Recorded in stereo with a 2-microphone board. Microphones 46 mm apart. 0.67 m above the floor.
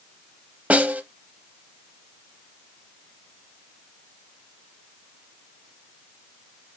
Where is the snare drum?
30° right (ahead or behind), 0.6 m.